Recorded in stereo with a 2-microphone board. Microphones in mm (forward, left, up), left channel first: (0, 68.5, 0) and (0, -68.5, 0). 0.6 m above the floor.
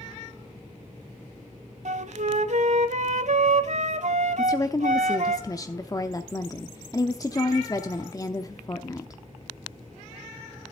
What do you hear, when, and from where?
1.9 s a flute: 60° right (ahead or behind), 0.7 m
4.4 s a woman speaking: 25° left (ahead or behind), 0.8 m